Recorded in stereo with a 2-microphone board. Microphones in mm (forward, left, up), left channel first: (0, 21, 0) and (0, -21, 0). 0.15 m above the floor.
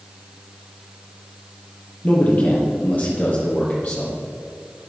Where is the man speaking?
40° left (ahead or behind), 4 m; by 4.2 s 35° left (ahead or behind), 5 m.